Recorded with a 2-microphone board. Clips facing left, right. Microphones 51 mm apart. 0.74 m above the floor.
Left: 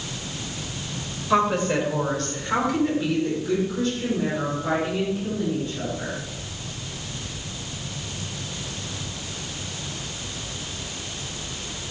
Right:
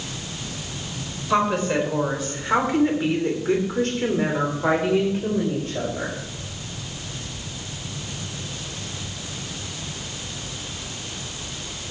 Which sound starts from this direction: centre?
A woman speaking, at 1.3 s.